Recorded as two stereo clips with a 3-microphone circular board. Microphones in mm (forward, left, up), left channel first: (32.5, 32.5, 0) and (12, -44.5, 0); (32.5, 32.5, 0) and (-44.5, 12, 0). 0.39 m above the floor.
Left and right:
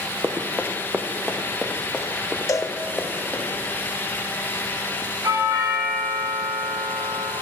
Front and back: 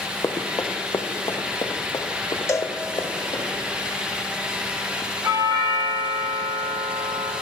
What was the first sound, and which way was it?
Running footsteps, 40° right.